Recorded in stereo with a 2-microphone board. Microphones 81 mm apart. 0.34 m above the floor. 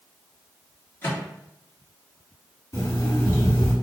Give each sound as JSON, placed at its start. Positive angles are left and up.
{"t": 1.0, "sound": "a microwave", "side_deg": 25, "distance_m": 1.6}
{"t": 2.7, "sound": "an alarm clock", "side_deg": 40, "distance_m": 1.9}